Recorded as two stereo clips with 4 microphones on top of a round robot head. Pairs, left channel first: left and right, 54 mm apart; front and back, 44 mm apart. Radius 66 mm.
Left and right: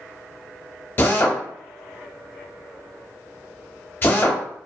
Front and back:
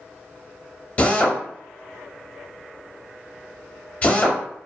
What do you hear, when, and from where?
1.0 s a drill: 50° left, 0.8 m